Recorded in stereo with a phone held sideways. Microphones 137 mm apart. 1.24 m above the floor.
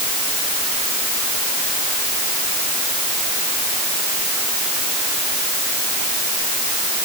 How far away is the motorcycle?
I don't hear a motorcycle.